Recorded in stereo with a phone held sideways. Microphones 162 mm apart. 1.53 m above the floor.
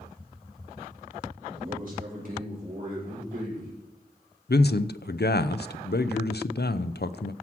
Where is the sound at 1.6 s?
60° right (ahead or behind), 6 m.